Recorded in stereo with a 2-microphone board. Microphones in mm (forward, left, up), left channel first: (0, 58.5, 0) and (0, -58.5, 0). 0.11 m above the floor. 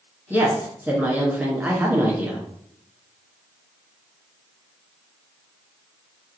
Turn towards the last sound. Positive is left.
turn(degrees=-15)  # may be behind; listen again after turning